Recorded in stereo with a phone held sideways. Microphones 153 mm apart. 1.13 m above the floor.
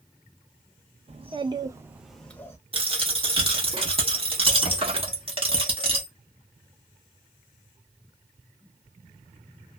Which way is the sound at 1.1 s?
40° right (ahead or behind).